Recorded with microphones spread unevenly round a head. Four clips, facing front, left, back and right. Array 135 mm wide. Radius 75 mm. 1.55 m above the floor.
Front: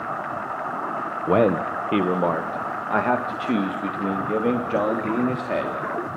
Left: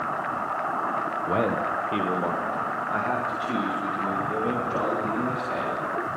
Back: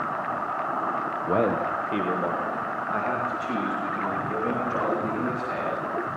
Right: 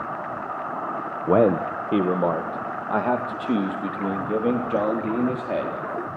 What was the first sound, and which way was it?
A man speaking, 70° right.